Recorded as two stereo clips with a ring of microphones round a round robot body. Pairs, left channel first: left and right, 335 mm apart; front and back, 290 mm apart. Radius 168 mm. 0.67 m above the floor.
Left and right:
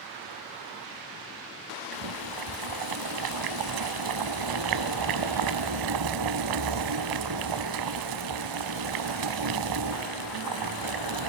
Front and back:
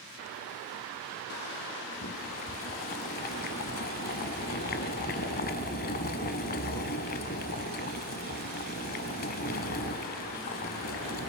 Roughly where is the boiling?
Ahead right.